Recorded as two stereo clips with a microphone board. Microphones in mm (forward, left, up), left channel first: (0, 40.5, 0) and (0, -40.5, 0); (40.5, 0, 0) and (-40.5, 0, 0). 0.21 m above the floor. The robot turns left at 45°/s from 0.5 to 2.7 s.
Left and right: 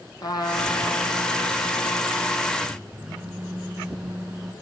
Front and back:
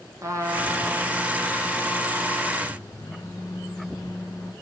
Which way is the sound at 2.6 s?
10° right.